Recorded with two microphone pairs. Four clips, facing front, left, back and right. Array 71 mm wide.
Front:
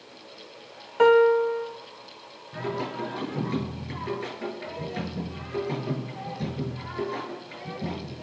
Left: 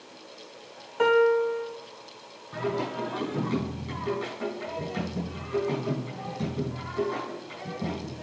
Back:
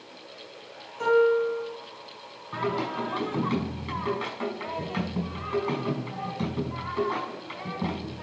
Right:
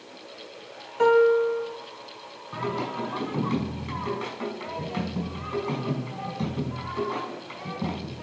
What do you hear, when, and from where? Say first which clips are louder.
1.0 s a piano: right 2 dB, front 4 dB; 10° left, 1.5 m
2.5 s singing: even, back 3 dB; 155° right, 5.5 m